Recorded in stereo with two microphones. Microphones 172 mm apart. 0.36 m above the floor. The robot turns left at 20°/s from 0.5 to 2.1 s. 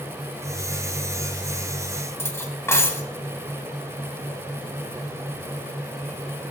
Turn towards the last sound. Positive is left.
turn(degrees=15)  # may be behind; listen again after turning